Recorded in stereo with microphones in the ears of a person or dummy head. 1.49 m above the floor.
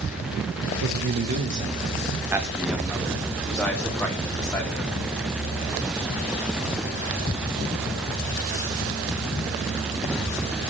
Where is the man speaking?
60° right (ahead or behind), 1.2 m; by 4.9 s 15° left (ahead or behind), 3.5 m.